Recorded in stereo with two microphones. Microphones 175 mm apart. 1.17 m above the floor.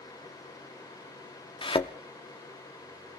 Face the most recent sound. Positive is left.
turn(degrees=30)  # may be behind; listen again after turning